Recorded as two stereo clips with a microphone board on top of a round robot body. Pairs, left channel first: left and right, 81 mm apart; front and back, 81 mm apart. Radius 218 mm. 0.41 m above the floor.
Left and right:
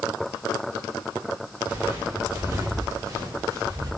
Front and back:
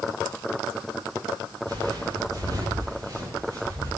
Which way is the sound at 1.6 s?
150° right.